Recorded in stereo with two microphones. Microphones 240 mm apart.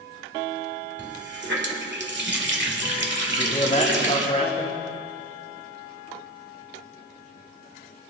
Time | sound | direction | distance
1.0 | a running tap | 50° right (ahead or behind) | 1.6 m
3.3 | a man speaking | 30° left (ahead or behind) | 3 m